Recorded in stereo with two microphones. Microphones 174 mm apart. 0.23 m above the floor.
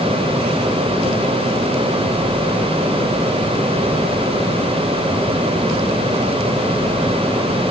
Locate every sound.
Only background noise.